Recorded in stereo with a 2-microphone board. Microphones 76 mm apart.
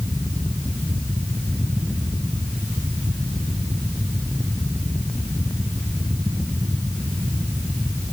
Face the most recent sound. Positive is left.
No sound to turn to.